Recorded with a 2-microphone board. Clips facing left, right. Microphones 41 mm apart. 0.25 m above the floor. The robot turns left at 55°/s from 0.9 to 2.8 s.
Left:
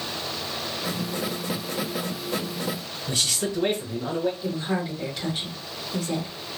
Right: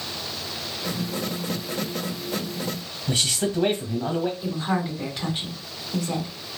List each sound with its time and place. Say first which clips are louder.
3.1 s a man speaking: right 2 dB; 35° right (ahead or behind), 1.5 m
4.4 s a woman speaking: right 1 dB; 20° right (ahead or behind), 1.4 m